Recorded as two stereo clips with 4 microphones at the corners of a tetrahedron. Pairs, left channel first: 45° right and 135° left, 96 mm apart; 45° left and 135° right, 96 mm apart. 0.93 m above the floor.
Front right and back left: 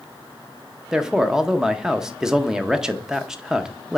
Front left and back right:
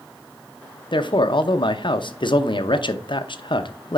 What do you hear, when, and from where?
0.9 s a man speaking: 55° left, 0.7 m